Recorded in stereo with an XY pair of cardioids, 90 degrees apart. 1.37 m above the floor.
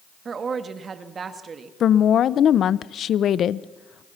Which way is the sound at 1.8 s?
65° left.